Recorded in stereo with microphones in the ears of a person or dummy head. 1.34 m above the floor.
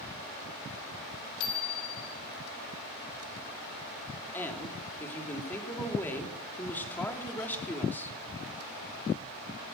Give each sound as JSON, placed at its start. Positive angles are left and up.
{"t": 1.4, "sound": "a bicycle bell", "side_deg": 75, "distance_m": 8.5}
{"t": 4.3, "sound": "a woman speaking", "side_deg": 20, "distance_m": 3.5}